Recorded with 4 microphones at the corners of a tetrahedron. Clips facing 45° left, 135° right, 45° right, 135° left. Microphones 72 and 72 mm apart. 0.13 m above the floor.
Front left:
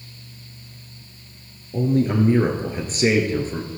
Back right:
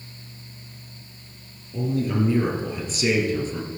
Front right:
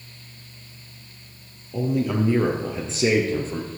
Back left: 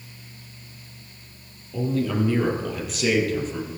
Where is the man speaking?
30° left, 3 m; by 3.7 s 5° left, 3 m.